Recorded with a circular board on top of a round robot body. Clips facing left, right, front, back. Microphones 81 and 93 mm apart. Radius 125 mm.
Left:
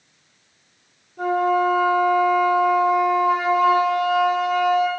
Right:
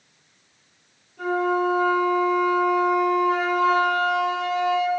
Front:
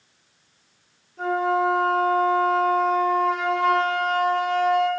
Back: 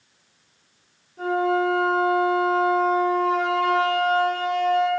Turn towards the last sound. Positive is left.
turn(degrees=105)